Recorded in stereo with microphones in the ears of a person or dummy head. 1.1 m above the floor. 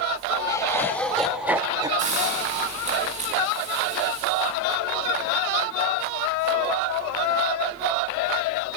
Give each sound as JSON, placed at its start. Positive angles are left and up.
{"t": 0.5, "sound": "laughter", "side_deg": 20, "distance_m": 1.4}
{"t": 2.0, "sound": "a hiss", "side_deg": -35, "distance_m": 6.5}